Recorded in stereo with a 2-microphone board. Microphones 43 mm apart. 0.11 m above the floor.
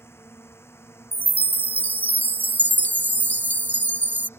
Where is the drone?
75° left (ahead or behind); by 4.4 s 70° left (ahead or behind).